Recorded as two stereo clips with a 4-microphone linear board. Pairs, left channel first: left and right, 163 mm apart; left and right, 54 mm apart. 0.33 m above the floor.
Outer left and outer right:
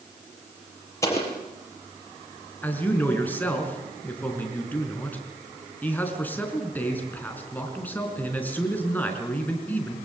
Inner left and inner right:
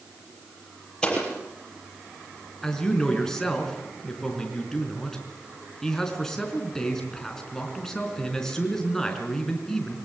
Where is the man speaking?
10° left (ahead or behind), 4.5 m.